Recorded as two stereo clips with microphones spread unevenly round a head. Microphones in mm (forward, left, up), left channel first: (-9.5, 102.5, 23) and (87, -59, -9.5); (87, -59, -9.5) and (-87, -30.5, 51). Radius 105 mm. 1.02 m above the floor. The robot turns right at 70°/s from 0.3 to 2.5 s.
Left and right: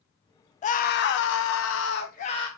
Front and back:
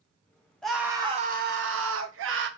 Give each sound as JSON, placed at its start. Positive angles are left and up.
{"t": 0.6, "sound": "a scream", "azimuth_deg": 65, "distance_m": 0.5}